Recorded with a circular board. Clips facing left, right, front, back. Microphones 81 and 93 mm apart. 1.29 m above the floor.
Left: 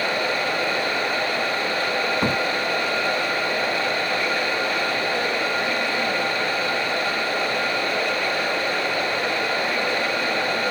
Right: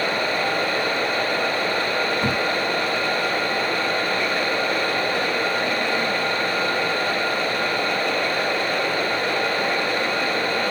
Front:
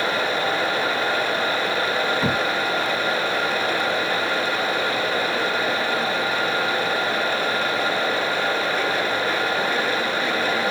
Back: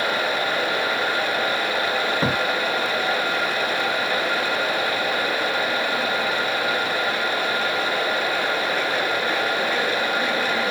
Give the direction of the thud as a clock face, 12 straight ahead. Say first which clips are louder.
Left 1 dB, even; 7 o'clock.